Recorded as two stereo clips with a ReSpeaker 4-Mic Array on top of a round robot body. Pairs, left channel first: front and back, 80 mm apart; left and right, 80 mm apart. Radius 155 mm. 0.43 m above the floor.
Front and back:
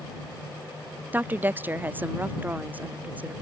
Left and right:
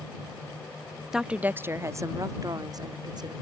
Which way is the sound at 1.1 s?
160° right.